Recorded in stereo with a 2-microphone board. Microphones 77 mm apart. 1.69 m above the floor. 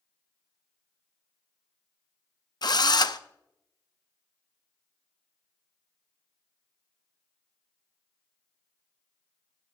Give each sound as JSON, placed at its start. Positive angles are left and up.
{"t": 2.6, "sound": "a drill", "side_deg": 65, "distance_m": 0.5}